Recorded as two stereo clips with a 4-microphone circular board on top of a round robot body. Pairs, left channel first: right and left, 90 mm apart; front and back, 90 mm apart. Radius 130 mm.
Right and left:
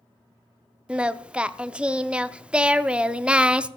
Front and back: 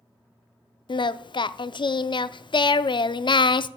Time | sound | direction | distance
0.9 | singing | 15° left | 0.6 m